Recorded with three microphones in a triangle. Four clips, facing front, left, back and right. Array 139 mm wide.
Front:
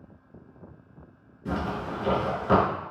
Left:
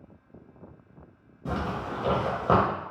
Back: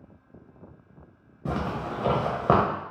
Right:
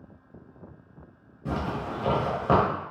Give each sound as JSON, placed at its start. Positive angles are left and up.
{"t": 1.4, "sound": "a zipper", "azimuth_deg": 170, "distance_m": 0.7}